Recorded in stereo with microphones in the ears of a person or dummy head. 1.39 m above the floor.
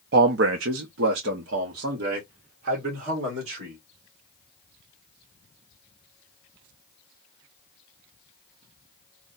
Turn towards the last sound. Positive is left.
turn(degrees=-50)  # may be behind; listen again after turning